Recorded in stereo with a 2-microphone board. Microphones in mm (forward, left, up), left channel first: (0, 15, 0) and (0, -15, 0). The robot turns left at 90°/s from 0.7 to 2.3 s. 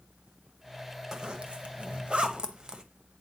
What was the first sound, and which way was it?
A zipper, 20° right (ahead or behind).